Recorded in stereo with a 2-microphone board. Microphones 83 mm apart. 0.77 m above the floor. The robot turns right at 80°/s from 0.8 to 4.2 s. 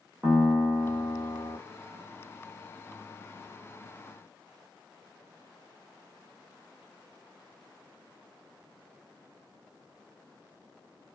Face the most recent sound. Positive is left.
turn(degrees=-100)